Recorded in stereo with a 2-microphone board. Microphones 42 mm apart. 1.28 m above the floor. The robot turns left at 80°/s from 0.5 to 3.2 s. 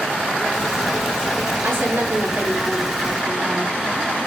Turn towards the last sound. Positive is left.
turn(degrees=170)